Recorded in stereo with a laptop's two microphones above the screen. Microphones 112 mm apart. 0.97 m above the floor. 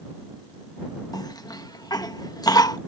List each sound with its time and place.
1.1 s a cough: 35° left (ahead or behind)